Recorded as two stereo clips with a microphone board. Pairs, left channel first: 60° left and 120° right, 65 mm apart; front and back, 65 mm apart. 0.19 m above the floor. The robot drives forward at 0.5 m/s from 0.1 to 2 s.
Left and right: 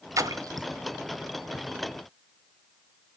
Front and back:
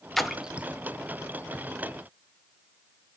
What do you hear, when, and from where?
0.2 s a splash: 85° right, 0.6 m; by 0.7 s 110° right, 0.6 m